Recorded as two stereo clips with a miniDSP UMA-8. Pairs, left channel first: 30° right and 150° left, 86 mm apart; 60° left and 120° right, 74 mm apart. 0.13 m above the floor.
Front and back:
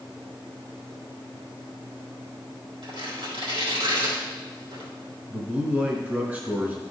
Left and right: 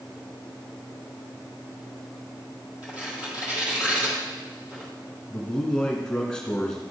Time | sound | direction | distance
2.8 | tearing paper | 170° left | 2.5 m
5.3 | a man speaking | 120° left | 1.1 m